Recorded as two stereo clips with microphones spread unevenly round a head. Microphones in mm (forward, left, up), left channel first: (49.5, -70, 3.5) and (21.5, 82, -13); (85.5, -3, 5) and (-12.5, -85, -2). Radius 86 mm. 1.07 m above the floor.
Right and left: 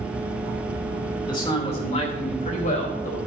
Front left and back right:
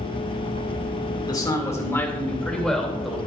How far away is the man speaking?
About 3 m.